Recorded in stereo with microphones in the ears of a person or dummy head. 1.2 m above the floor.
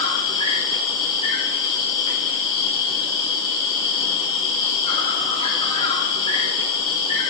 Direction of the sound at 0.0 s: 40° left (ahead or behind).